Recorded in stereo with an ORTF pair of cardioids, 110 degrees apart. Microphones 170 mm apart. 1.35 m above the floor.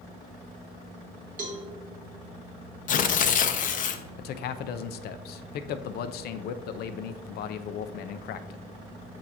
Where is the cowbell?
50° right, 1.7 m.